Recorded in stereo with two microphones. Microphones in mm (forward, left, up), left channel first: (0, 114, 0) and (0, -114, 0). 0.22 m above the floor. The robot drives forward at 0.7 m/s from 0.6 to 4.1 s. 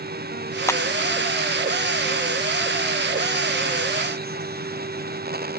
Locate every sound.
0.7 s a clap: 10° left (ahead or behind)